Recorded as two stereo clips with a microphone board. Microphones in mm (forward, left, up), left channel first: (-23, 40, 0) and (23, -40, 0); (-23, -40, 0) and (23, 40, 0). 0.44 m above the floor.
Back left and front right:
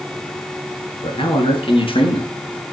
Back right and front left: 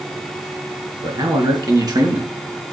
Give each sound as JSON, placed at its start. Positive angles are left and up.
{"t": 1.0, "sound": "a man speaking", "azimuth_deg": 100, "distance_m": 4.5}